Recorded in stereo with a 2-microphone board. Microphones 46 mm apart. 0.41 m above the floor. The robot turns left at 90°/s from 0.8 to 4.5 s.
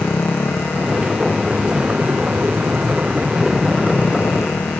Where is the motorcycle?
65° left; by 4.8 s 95° left.